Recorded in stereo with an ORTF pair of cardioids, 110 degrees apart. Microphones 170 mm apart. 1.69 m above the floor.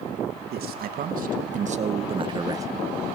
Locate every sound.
0.5 s a man speaking: 70° right, 2.5 m; by 2.7 s 20° right, 1.9 m